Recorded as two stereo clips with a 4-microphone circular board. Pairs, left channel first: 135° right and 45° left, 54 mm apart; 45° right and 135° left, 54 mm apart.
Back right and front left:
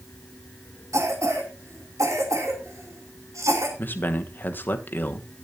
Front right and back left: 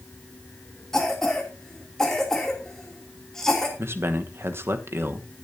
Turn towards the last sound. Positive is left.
turn(degrees=175)